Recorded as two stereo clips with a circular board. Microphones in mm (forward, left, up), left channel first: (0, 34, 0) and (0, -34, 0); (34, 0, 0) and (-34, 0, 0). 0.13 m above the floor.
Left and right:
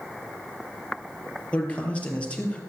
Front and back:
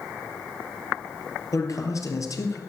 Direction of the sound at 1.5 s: 20° left.